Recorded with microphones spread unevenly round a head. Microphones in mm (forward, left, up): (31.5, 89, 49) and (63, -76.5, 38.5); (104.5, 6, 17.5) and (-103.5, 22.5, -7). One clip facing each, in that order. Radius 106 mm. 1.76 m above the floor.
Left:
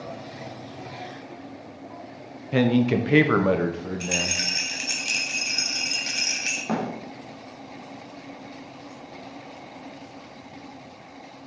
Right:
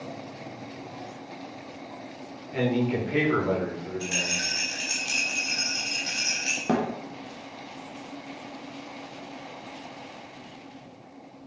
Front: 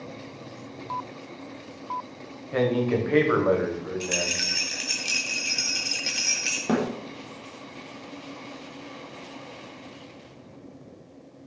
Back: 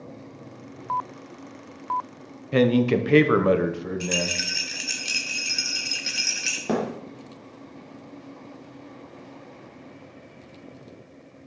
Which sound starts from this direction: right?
A thud, at 6.7 s.